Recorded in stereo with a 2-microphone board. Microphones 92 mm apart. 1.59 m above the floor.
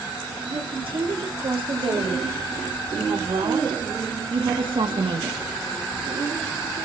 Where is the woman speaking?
80° right, 4.5 m; by 5.4 s 75° right (ahead or behind), 2 m.